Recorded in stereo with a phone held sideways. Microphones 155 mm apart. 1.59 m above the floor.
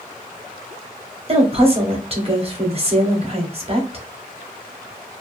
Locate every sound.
1.3 s a woman speaking: 40° right (ahead or behind), 0.8 m